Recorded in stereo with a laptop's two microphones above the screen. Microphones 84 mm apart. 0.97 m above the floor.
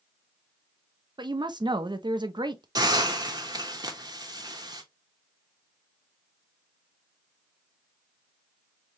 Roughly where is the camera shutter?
I don't hear a camera shutter.